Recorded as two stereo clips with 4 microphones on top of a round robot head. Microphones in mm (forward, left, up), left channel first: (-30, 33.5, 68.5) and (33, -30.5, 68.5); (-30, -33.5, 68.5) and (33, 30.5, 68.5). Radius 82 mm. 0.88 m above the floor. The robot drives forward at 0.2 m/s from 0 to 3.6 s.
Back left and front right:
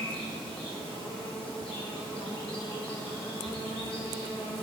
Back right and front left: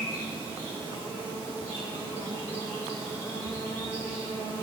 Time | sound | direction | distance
0.0 | an insect | 160° left | 7 m